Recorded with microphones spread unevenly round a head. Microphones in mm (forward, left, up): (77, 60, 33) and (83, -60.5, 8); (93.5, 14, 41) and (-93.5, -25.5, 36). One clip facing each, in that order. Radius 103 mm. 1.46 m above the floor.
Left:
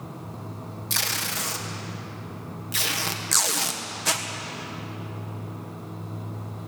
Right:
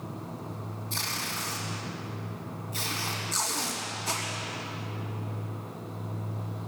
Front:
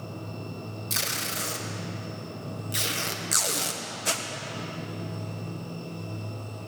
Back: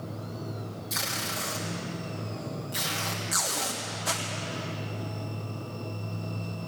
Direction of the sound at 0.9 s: 75° left.